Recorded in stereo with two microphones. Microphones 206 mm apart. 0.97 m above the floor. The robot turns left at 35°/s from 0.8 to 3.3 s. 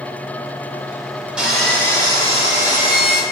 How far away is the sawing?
About 1.1 m.